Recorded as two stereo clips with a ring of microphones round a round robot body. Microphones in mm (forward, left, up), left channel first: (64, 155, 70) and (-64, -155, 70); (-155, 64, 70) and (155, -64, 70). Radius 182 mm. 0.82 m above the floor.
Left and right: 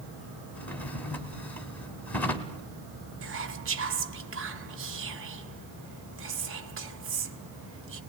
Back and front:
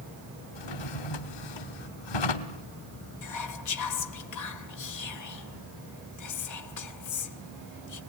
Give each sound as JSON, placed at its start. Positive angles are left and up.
{"t": 0.6, "sound": "a drawer", "azimuth_deg": 155, "distance_m": 1.4}
{"t": 3.2, "sound": "whispering", "azimuth_deg": -165, "distance_m": 1.8}